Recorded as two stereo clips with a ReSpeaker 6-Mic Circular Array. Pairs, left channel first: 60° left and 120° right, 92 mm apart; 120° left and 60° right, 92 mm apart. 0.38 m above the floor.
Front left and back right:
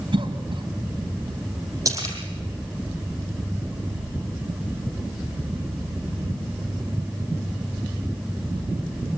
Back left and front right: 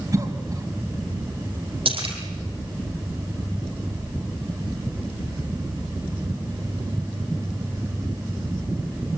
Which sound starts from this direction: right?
A cough, at 0.1 s.